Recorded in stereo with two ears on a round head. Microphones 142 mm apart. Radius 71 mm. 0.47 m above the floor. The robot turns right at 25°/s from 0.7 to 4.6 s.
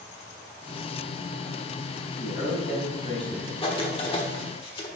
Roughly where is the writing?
Left.